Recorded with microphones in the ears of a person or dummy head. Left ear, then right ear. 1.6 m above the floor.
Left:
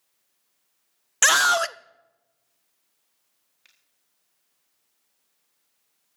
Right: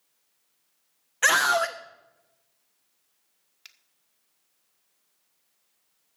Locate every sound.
1.2 s a scream: 70° left (ahead or behind), 0.7 m
3.6 s a finger snap: 25° right (ahead or behind), 1.5 m